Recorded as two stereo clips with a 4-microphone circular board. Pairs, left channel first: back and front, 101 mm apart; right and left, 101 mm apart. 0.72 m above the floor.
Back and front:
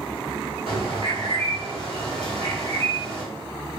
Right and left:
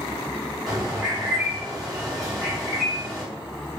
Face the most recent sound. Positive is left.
turn(degrees=0)